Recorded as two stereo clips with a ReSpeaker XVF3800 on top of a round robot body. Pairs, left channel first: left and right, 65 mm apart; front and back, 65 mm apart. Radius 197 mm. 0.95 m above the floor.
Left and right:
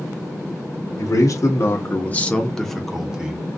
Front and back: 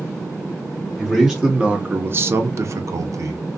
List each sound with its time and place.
1.0 s a man speaking: 95° left, 1.0 m; by 3.6 s 155° right, 1.1 m